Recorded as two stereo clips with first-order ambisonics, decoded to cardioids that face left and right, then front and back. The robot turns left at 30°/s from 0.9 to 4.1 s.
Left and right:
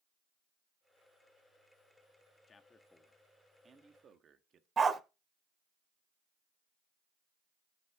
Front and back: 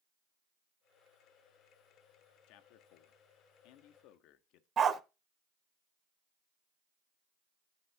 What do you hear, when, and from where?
2.5 s a man speaking: 20° left, 1.1 m; by 4.7 s 30° right, 1.1 m
4.8 s a dog barking: 145° right, 0.6 m